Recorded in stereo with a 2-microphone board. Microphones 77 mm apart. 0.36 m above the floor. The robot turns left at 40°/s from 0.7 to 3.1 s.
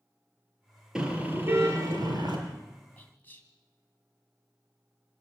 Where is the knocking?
I don't hear knocking.